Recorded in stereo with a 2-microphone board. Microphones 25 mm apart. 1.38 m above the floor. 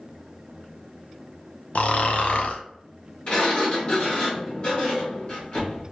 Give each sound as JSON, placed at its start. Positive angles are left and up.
{"t": 1.8, "sound": "snoring", "side_deg": 60, "distance_m": 0.7}
{"t": 3.3, "sound": "a sliding door", "side_deg": 40, "distance_m": 2.0}